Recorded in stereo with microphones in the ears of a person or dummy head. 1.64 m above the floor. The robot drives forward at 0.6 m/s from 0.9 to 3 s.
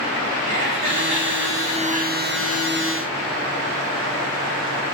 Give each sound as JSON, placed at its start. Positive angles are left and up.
{"t": 0.5, "sound": "laughter", "side_deg": -40, "distance_m": 2.5}